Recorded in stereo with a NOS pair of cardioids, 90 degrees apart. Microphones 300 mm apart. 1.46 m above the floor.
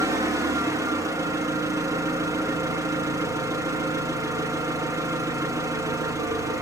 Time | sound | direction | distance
0.0 | an engine running | 10° right | 1.1 m